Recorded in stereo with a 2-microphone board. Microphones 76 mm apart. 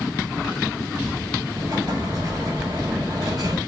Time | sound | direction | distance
1.5 | an explosion | 50° right (ahead or behind) | 4 m